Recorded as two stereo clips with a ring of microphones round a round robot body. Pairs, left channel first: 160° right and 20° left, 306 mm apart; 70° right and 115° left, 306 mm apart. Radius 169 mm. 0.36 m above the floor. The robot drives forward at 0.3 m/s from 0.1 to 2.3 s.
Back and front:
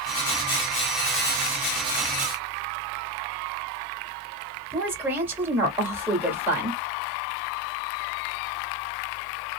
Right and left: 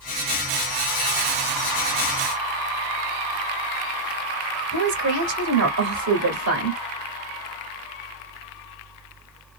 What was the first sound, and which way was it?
A woman speaking, 105° left.